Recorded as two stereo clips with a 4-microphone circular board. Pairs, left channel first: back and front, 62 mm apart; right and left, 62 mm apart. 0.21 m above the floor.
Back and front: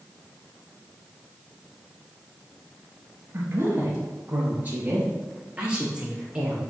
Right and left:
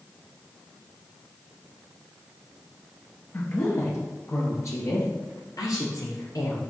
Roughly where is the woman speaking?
Ahead right.